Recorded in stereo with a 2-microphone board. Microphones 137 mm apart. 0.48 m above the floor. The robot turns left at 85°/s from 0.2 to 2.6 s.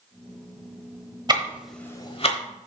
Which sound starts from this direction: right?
Ticking, at 1.3 s.